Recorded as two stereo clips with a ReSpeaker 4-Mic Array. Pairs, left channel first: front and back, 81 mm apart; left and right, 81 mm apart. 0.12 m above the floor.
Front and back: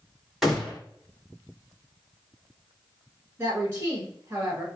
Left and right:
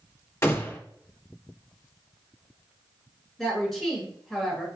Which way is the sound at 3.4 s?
175° left.